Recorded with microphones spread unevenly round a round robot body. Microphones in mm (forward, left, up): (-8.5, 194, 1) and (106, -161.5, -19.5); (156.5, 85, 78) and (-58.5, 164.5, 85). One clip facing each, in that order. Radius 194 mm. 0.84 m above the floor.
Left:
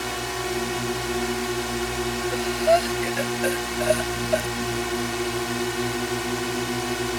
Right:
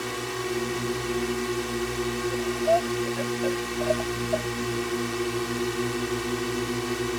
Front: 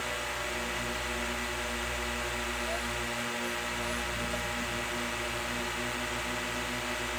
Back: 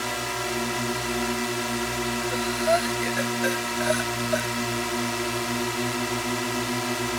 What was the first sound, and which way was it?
A drone, 170° right.